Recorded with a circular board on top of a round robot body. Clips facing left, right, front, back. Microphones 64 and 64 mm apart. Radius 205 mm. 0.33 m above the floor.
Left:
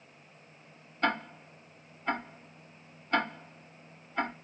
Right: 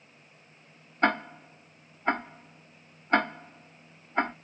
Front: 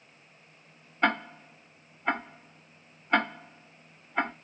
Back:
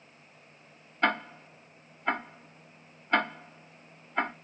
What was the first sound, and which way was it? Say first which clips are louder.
Ticking: right 4 dB, front 1 dB; 80° right.